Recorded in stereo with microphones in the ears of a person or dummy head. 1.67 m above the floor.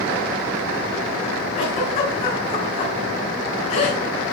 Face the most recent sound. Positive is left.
turn(degrees=50)  # may be behind; listen again after turning